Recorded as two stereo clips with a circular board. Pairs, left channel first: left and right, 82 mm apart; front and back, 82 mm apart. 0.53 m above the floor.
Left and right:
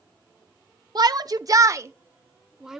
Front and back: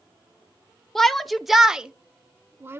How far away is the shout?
About 1.1 m.